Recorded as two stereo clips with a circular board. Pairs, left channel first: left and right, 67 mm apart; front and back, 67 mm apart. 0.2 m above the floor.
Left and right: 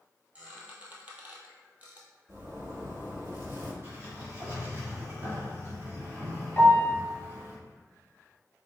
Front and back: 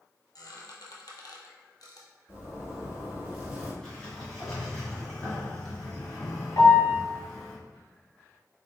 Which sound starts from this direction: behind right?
A zipper, at 2.3 s.